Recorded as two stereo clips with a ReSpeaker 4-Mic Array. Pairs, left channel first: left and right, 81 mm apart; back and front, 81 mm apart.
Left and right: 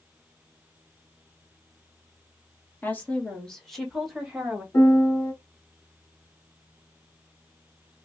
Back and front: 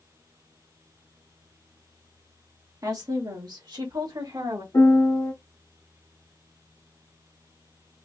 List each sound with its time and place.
2.8 s a woman speaking: 30° left, 1.3 m; by 4.6 s 15° right, 1.8 m
4.7 s a piano: 135° left, 1.2 m